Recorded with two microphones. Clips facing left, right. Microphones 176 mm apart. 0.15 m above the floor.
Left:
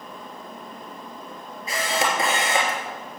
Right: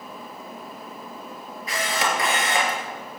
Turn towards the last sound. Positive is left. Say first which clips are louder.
# left 1 dB
turn(degrees=25)  # may be behind; listen again after turning